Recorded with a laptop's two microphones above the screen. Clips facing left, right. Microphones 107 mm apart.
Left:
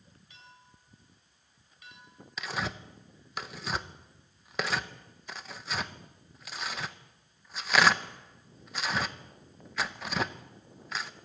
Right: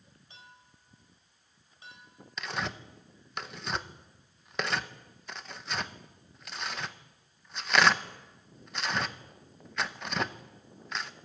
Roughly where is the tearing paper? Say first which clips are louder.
Even; centre.